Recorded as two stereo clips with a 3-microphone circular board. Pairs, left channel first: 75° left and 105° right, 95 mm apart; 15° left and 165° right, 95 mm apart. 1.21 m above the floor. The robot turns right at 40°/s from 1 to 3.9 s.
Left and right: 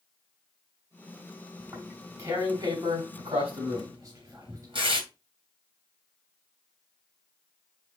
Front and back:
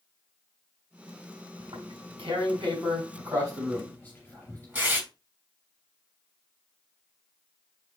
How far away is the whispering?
About 2.5 m.